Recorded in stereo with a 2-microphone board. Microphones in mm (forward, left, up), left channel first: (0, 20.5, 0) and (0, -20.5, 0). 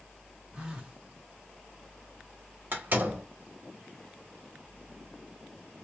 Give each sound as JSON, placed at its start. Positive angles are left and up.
{"t": 0.5, "sound": "a phone buzzing", "side_deg": -25, "distance_m": 1.1}
{"t": 2.7, "sound": "a door slam", "side_deg": -50, "distance_m": 1.3}